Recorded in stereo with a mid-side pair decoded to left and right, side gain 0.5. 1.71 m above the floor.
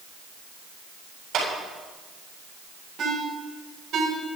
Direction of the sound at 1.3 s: 65° right.